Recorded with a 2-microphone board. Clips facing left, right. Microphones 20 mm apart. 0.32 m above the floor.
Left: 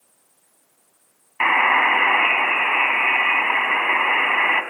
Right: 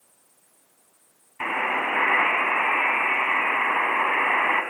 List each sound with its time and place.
1.4 s a buzzer: 45° left (ahead or behind), 3 m